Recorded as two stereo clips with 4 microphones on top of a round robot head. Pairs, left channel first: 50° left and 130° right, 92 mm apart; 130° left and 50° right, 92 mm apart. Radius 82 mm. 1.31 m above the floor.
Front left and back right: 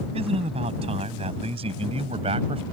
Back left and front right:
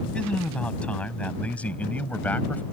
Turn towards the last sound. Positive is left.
turn(degrees=-155)